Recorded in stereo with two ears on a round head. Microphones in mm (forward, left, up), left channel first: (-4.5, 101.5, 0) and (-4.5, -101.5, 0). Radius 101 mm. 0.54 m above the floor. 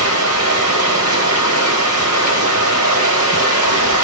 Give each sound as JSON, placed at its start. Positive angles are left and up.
{"t": 0.0, "sound": "running water", "side_deg": -70, "distance_m": 3.0}